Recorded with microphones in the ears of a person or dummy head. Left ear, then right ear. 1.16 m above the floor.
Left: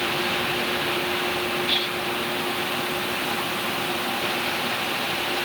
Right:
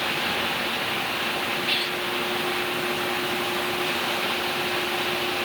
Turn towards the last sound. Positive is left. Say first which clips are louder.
# left 1 dB
turn(degrees=-5)  # may be behind; listen again after turning